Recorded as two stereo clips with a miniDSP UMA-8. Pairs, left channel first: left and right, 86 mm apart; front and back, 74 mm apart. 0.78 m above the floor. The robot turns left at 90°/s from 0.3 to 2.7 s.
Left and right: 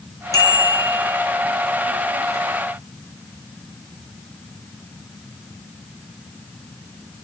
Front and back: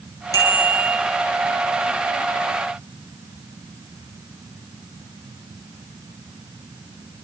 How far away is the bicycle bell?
About 6.5 m.